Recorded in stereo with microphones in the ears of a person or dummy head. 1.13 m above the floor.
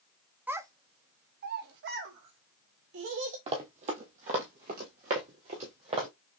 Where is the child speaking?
15° right (ahead or behind), 0.7 m; by 3.4 s 80° right, 2 m.